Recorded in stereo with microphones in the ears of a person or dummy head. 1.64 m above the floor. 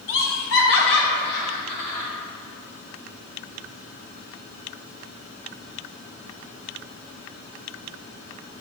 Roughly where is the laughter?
Left.